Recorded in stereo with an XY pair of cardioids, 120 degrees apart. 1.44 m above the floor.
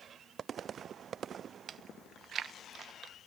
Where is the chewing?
45° right, 1.1 m.